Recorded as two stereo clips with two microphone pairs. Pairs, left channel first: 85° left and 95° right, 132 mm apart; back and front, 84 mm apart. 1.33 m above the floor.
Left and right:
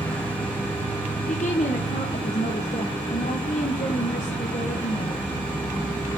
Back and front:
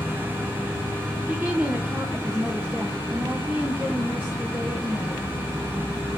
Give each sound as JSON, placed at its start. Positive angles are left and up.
{"t": 0.0, "sound": "an insect", "azimuth_deg": 160, "distance_m": 3.5}
{"t": 1.3, "sound": "a woman speaking", "azimuth_deg": 70, "distance_m": 1.1}